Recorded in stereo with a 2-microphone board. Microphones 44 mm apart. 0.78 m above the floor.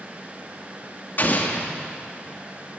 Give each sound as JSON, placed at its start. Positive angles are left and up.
{"t": 1.2, "sound": "an explosion", "side_deg": 45, "distance_m": 1.5}